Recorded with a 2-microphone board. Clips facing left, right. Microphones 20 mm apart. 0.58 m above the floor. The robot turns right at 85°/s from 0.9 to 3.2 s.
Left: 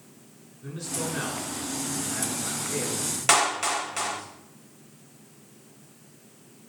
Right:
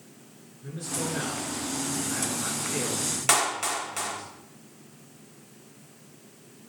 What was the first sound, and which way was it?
A man speaking, 110° left.